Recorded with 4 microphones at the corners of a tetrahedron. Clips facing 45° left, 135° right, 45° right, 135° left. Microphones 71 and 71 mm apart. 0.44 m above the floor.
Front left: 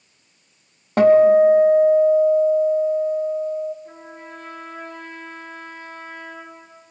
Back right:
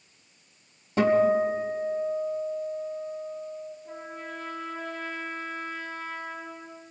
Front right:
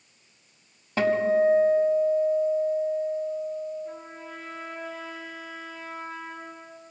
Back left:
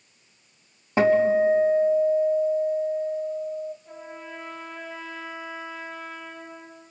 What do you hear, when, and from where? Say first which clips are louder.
1.0 s a guitar: front left 10 dB, back left 3 dB; 65° left, 1.6 m
3.9 s a trumpet: even, even; straight ahead, 9 m